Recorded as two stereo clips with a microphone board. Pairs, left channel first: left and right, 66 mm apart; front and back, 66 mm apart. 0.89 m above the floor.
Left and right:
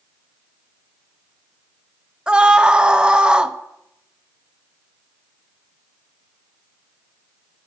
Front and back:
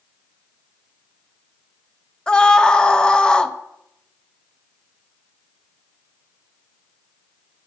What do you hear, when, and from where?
2.3 s a scream: 45° right, 0.5 m